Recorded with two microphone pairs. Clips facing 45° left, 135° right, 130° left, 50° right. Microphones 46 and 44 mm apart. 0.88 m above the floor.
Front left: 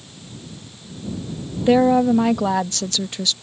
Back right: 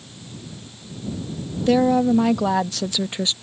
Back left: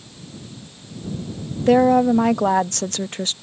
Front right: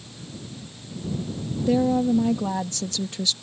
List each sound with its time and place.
1.7 s a woman speaking: 115° left; by 3.3 s 170° left